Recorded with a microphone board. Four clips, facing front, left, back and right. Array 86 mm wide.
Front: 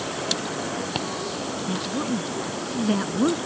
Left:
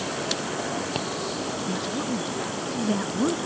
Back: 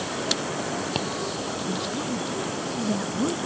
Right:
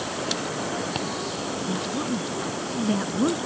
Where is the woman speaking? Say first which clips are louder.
Right 2 dB, front 4 dB; 10° right.